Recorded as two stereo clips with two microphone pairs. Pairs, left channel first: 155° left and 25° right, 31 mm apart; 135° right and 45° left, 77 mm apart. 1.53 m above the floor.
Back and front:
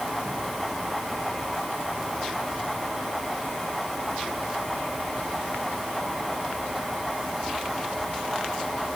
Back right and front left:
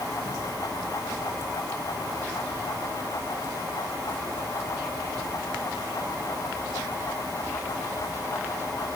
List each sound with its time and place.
Only background noise.